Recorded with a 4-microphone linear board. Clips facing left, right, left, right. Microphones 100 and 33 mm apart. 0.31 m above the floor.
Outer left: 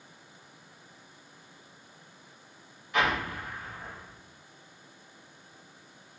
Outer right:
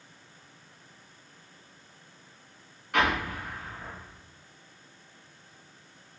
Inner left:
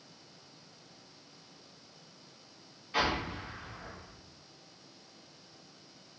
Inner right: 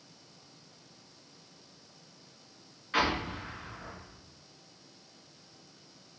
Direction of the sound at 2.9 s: 70° right (ahead or behind).